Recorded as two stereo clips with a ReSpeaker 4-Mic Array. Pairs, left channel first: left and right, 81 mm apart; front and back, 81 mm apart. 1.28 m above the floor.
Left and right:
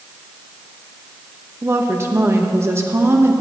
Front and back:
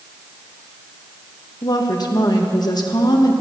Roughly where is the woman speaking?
Ahead right.